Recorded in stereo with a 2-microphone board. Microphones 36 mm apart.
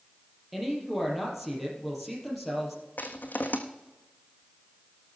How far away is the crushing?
About 1.4 m.